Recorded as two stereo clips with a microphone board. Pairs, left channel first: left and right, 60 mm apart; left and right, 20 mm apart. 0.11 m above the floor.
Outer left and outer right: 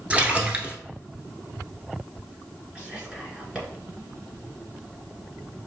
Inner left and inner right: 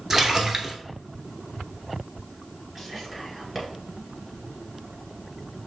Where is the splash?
20° right (ahead or behind), 0.7 m.